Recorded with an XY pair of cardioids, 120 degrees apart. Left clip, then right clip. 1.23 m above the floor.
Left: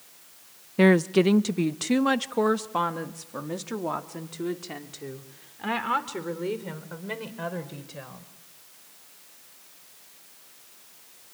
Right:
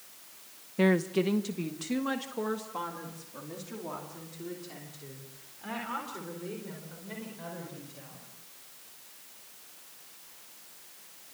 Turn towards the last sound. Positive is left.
turn(degrees=65)